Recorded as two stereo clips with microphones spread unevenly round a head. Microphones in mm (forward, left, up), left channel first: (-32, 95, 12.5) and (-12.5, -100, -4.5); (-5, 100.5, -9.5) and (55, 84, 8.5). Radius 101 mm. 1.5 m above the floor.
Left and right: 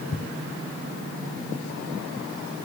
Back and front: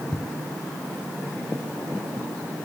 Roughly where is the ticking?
Left.